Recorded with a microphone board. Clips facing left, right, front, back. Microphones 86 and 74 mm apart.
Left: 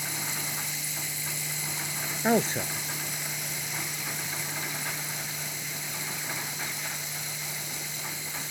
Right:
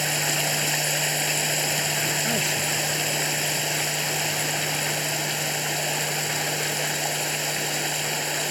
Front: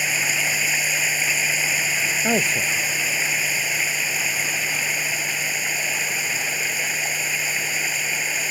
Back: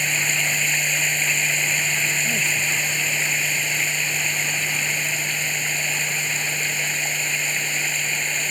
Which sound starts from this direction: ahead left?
A man speaking, at 2.2 s.